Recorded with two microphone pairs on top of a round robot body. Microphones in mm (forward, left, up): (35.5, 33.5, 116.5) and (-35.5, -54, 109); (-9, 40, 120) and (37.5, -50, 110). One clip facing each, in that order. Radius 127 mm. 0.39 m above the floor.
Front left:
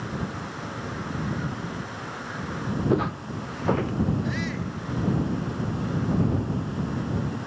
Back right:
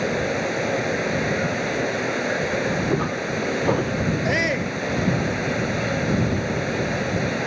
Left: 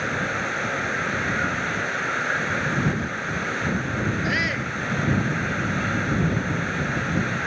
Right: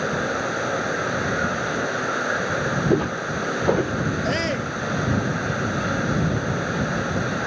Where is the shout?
120° right.